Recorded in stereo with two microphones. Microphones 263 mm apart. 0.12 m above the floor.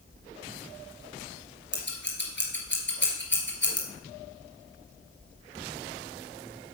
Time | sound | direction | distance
1.7 | scissors | 45° left (ahead or behind) | 2.5 m